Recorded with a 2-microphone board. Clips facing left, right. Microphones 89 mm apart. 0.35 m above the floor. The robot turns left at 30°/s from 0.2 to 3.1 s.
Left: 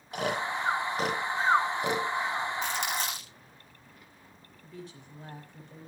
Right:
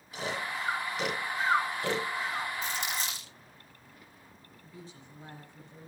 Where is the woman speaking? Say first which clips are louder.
Left 4 dB; 65° left (ahead or behind), 9 m.